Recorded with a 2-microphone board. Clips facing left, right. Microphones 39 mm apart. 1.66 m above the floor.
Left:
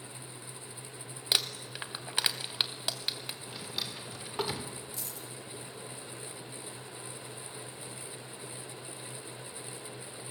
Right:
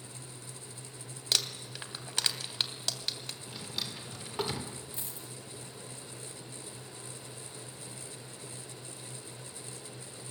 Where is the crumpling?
15° left (ahead or behind), 1.8 m.